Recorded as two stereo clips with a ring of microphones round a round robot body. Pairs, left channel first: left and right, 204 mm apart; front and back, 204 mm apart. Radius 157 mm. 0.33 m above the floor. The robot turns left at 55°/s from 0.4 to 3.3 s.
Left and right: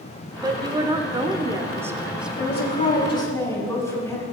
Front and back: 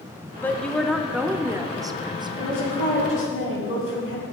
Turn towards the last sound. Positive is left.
turn(degrees=15)